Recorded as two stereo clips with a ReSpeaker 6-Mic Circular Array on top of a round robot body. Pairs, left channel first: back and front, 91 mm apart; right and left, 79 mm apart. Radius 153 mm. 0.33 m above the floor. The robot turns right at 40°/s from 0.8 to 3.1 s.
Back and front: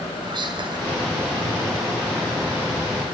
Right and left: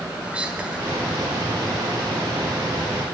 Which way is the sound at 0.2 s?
15° left.